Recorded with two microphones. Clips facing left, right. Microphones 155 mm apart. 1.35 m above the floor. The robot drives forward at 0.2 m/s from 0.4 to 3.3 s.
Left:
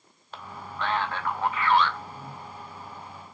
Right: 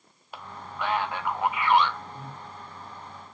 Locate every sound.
0.3 s a man speaking: 10° right (ahead or behind), 0.8 m; by 2.0 s 15° right (ahead or behind), 0.5 m
2.1 s breathing: 45° right (ahead or behind), 1.0 m; by 2.4 s 40° right (ahead or behind), 1.1 m